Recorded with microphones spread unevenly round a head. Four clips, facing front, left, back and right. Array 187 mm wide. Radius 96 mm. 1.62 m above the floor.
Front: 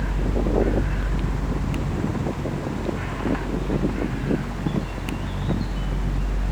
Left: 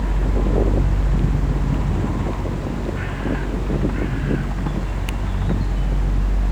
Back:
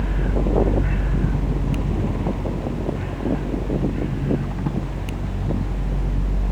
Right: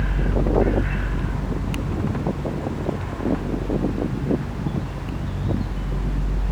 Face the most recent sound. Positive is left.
No sound to turn to.